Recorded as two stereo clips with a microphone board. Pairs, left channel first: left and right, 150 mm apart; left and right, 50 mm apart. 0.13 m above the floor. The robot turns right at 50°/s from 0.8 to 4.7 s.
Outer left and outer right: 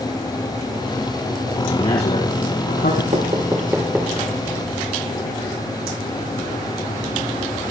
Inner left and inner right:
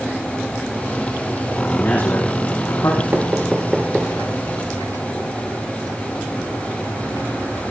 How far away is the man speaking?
About 7 m.